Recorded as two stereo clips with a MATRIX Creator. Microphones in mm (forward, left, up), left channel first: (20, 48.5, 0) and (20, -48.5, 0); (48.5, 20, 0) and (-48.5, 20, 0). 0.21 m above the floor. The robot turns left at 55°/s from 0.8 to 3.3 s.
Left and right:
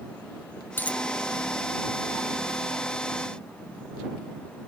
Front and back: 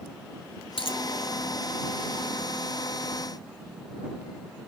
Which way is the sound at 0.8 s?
20° left.